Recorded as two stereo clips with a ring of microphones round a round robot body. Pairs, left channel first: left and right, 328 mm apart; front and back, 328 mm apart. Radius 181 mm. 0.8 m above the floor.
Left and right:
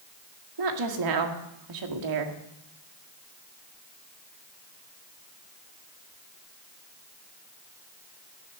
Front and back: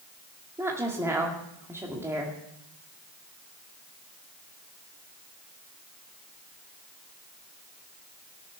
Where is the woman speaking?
95° right, 1.9 m.